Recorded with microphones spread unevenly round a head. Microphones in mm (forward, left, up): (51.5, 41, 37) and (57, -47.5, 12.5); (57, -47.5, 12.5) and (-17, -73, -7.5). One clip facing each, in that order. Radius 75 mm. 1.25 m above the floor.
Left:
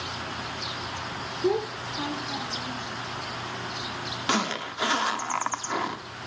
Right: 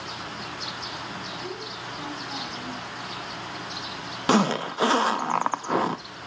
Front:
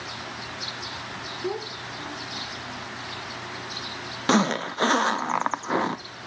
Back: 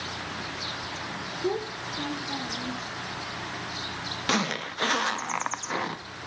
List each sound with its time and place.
1.4 s a child speaking: 115° left, 0.7 m; by 2.8 s 155° right, 1.4 m
4.3 s a zipper: 40° right, 0.6 m